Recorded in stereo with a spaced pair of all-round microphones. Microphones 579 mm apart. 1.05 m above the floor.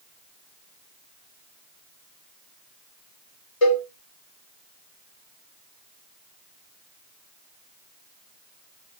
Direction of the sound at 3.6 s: 65° left (ahead or behind).